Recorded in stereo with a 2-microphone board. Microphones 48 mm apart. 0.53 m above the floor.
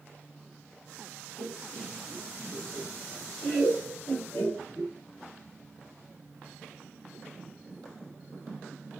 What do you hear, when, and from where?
1.4 s laughter: 35° left (ahead or behind), 7 m; by 4.9 s 50° left (ahead or behind), 6.5 m